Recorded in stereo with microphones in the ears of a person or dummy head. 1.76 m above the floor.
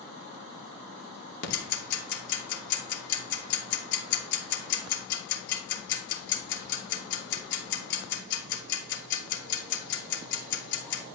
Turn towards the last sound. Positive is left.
turn(degrees=65)  # may be behind; listen again after turning